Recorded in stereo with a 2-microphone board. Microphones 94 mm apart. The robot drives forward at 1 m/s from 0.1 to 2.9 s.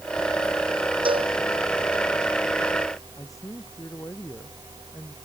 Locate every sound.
1.1 s a cowbell: 65° right (ahead or behind); by 1.3 s 60° right (ahead or behind)
3.2 s a man speaking: 35° left (ahead or behind)